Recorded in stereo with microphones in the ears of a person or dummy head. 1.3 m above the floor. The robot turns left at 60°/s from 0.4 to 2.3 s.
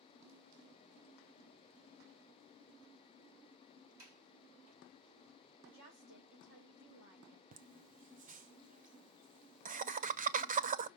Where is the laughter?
35° right (ahead or behind), 0.5 m.